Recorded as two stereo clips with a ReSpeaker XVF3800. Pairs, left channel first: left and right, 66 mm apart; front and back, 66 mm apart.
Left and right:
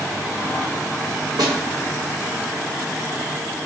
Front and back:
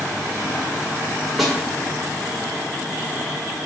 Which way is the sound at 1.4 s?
90° right.